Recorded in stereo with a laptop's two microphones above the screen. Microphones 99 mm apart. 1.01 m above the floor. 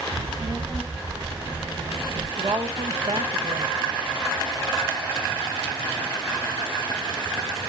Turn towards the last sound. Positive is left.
turn(degrees=-75)  # may be behind; listen again after turning